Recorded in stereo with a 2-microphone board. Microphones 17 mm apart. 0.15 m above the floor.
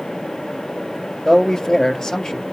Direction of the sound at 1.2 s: 30° left (ahead or behind).